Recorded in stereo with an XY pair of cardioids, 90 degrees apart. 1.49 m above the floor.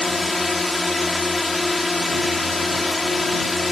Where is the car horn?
I don't hear a car horn.